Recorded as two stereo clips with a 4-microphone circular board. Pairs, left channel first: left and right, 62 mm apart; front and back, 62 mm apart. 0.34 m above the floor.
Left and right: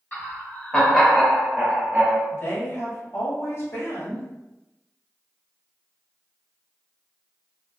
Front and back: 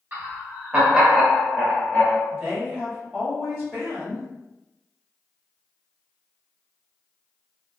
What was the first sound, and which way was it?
Laughter, 135° left.